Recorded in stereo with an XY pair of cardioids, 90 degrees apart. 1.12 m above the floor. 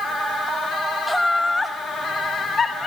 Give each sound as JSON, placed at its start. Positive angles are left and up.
{"t": 1.1, "sound": "laughter", "azimuth_deg": -5, "distance_m": 1.1}